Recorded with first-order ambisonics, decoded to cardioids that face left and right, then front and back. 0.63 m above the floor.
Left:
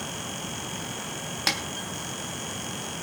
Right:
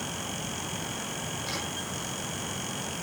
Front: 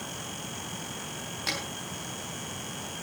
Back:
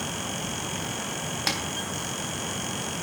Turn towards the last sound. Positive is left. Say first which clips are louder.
# left 10 dB, back 3 dB
turn(degrees=115)